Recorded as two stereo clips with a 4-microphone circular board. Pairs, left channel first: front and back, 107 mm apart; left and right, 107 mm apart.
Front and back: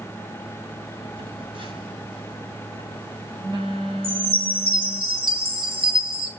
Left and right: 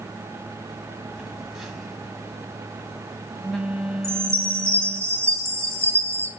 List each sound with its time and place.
1.1 s a phone buzzing: 175° right, 2 m
4.0 s a chime: 155° right, 2.5 m